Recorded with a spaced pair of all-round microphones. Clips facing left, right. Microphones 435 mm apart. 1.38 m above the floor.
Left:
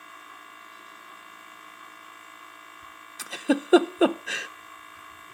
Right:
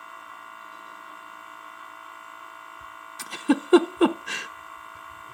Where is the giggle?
15° right (ahead or behind), 0.7 m.